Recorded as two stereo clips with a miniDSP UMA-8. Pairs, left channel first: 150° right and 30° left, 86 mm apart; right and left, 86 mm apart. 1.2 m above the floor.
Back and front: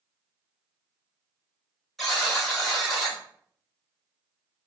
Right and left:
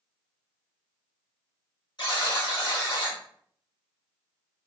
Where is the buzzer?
60° right, 1.2 m.